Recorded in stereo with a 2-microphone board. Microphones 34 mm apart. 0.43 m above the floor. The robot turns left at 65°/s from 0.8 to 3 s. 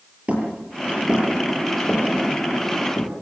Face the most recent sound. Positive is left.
turn(degrees=75)  # may be behind; listen again after turning